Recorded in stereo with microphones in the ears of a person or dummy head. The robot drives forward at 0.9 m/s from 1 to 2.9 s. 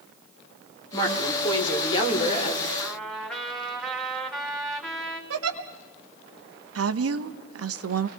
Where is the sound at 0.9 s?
25° left (ahead or behind), 5 m; by 2.7 s 35° left (ahead or behind), 3.5 m.